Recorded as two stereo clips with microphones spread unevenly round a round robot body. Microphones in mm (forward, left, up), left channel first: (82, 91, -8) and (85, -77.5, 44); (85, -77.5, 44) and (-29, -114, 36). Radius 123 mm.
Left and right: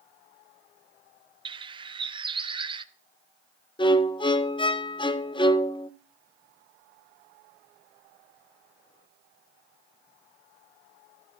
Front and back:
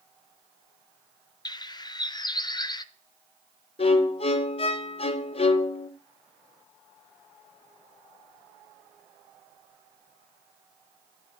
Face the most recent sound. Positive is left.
turn(degrees=50)